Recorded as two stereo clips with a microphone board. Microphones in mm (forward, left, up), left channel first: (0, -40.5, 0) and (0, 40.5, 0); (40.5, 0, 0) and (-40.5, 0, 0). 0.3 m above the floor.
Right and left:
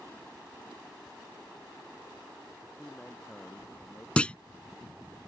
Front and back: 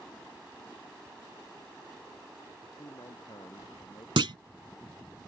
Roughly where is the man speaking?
Ahead.